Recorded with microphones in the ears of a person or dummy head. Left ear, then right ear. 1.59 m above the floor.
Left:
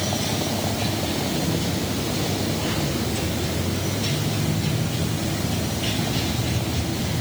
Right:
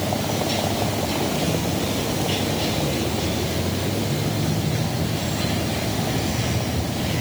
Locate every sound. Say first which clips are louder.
0.0 s a vehicle: right 1 dB; 80° right; by 7.2 s 75° right (ahead or behind)